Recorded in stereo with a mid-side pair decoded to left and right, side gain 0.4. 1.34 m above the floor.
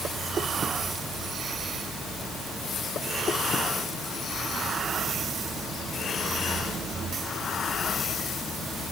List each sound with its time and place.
Only background noise.